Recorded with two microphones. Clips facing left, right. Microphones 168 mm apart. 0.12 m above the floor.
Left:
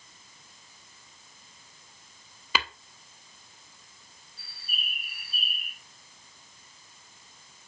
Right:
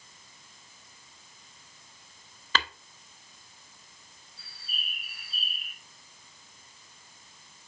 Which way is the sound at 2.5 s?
10° left (ahead or behind).